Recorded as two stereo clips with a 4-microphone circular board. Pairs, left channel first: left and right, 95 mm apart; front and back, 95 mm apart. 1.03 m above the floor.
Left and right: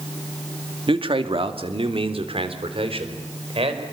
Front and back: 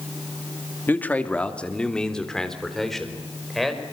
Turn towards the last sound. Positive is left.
turn(degrees=-90)